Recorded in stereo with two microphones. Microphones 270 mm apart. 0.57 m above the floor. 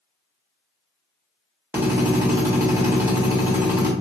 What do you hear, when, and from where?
1.7 s a drill: 10° right (ahead or behind), 1.2 m